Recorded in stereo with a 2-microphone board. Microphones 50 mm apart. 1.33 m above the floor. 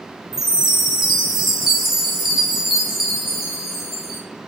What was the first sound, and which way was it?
A chime, 5° right (ahead or behind).